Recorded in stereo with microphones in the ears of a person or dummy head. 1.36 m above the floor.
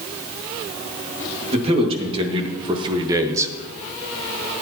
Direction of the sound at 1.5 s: 35° right (ahead or behind).